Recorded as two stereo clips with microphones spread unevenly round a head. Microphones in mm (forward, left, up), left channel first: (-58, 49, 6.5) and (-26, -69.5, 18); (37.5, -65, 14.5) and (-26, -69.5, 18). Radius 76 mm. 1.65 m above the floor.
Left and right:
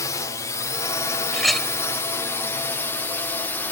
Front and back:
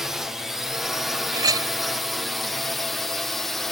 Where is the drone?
100° left; by 3.7 s 80° left.